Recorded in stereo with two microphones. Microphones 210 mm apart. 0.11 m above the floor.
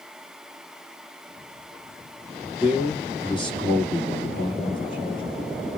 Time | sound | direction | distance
2.6 | a man speaking | 25° left (ahead or behind) | 1.5 m